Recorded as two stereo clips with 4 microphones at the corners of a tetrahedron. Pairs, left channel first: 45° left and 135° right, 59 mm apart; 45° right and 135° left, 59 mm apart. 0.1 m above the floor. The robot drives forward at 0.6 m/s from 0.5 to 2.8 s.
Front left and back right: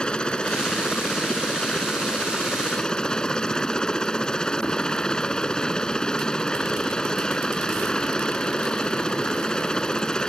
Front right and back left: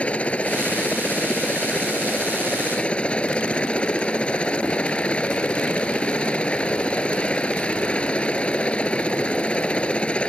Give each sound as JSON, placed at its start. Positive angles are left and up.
{"t": 0.0, "sound": "a helicopter", "azimuth_deg": -10}